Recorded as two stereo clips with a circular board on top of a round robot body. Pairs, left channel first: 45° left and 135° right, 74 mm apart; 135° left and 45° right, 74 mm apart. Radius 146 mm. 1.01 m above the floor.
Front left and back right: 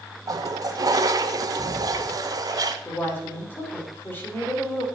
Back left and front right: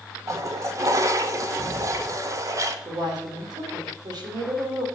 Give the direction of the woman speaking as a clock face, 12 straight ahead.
1 o'clock.